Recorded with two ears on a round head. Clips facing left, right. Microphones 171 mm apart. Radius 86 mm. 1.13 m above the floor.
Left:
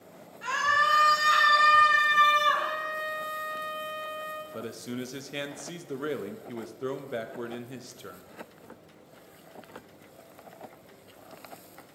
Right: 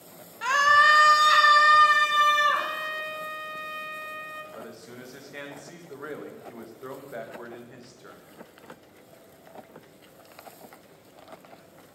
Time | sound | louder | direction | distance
0.4 | a scream | right 6 dB | 70° right (ahead or behind) | 1.1 m
2.5 | a trumpet | left 1 dB | 35° right (ahead or behind) | 0.7 m
4.5 | a man speaking | left 8 dB | 40° left (ahead or behind) | 0.7 m